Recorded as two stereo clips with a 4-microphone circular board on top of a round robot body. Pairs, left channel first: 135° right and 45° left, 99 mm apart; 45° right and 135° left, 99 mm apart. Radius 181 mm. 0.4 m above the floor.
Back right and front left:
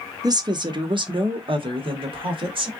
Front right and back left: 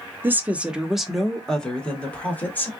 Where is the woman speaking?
75° left, 1.1 m; by 2.7 s 25° left, 2.0 m.